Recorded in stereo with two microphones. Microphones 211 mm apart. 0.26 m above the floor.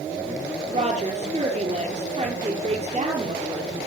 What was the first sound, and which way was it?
A woman speaking, 35° right (ahead or behind).